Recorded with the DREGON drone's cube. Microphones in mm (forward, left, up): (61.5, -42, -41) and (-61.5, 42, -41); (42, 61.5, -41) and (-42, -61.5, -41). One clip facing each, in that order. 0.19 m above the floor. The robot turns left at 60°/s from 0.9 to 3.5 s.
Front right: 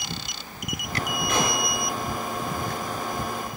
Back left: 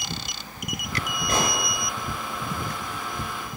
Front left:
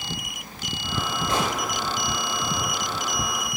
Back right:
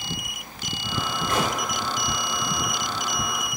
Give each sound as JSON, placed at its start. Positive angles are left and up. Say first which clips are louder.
{"t": 1.3, "sound": "a gunshot", "louder": "even, even", "azimuth_deg": 105, "distance_m": 2.0}